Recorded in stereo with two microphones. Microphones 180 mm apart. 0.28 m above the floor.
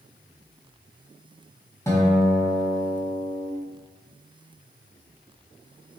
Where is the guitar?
15° left (ahead or behind), 1.3 m.